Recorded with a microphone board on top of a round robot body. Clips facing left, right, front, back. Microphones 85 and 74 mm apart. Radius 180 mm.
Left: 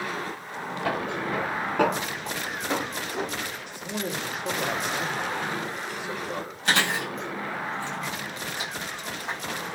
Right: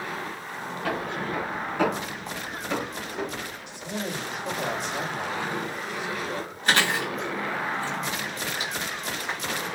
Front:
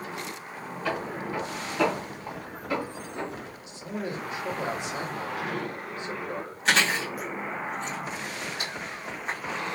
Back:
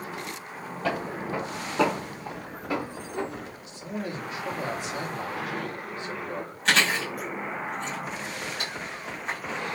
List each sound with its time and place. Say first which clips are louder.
0.8 s footsteps: left 1 dB, back 1 dB; 145° left, 1.5 m; by 3.5 s 105° left, 2.5 m
3.7 s a man speaking: right 1 dB, front 1 dB; 65° left, 2 m
6.7 s chewing: right 1 dB, even; 85° left, 2.5 m